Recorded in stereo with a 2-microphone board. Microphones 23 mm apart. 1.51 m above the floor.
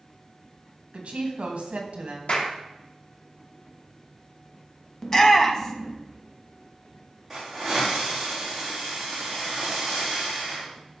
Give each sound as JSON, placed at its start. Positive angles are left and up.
{"t": 0.9, "sound": "a woman speaking", "side_deg": -65, "distance_m": 2.0}
{"t": 2.3, "sound": "a clap", "side_deg": 75, "distance_m": 2.5}
{"t": 5.0, "sound": "a shout", "side_deg": 20, "distance_m": 1.3}
{"t": 7.3, "sound": "a hiss", "side_deg": -15, "distance_m": 4.0}